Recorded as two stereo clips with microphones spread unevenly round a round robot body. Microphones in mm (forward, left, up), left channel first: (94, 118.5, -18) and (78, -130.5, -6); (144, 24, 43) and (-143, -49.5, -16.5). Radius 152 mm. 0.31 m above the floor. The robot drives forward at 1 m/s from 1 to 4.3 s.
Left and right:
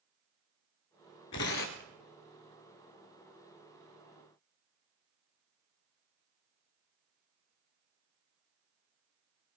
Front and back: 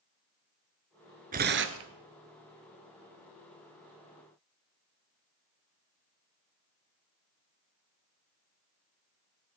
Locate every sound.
1.3 s tearing paper: 130° left, 0.9 m; by 1.9 s 150° left, 1.3 m